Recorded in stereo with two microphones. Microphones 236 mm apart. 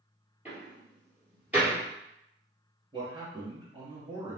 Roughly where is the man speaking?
Centre.